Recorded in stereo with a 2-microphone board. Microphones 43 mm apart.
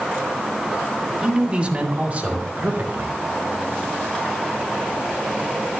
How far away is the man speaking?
About 1.7 m.